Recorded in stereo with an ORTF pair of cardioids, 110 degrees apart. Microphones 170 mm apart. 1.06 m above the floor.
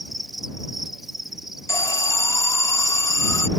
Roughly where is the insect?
Ahead.